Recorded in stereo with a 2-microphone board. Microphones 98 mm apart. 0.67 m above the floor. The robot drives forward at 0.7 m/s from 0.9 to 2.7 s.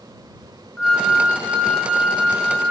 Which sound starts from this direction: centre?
A flute, at 0.8 s.